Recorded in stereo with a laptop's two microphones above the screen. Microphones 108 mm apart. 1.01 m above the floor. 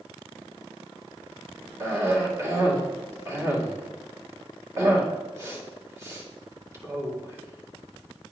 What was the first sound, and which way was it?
A cough, 25° right (ahead or behind).